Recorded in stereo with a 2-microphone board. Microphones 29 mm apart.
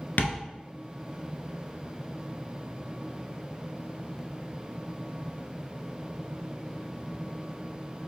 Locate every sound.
0.2 s tapping: 80° left, 0.6 m